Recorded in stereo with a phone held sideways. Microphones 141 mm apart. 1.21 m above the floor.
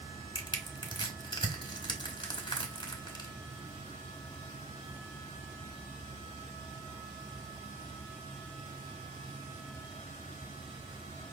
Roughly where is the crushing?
Left.